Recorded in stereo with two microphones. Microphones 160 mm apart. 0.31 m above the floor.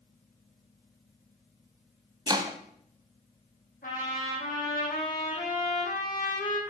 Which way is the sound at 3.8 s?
70° left (ahead or behind).